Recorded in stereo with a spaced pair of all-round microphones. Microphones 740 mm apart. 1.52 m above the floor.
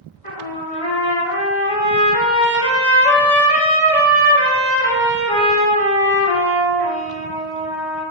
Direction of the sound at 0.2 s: 30° left (ahead or behind).